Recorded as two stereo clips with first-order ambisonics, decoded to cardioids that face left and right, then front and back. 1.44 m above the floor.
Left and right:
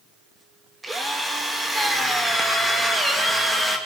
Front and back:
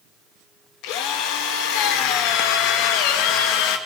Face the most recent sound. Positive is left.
turn(degrees=-10)